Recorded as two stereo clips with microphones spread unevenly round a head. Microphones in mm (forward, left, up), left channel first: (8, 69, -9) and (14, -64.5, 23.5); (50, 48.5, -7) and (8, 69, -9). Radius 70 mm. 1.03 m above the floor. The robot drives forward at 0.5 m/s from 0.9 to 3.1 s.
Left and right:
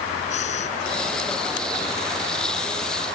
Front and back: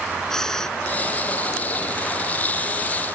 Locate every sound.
0.3 s breathing: 50° left